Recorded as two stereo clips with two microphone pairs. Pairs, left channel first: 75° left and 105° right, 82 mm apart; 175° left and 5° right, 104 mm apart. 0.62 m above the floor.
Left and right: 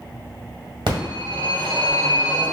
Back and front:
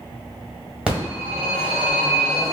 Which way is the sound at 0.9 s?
85° right.